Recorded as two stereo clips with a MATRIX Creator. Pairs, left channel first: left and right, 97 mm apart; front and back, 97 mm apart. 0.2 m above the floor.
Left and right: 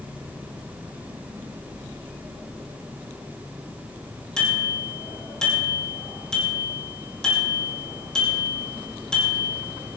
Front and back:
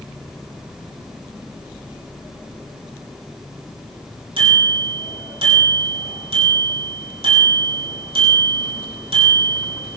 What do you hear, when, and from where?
4.4 s a bicycle bell: 170° left, 7 m